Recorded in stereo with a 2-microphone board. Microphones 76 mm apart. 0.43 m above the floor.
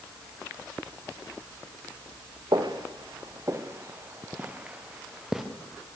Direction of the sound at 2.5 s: 65° right (ahead or behind).